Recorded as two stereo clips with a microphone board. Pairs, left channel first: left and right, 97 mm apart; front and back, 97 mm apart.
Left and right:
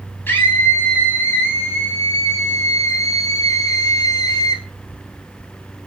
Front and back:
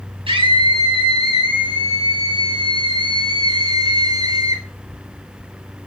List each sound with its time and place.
0.3 s a scream: 160° left, 5.5 m; by 4.6 s 135° left, 4 m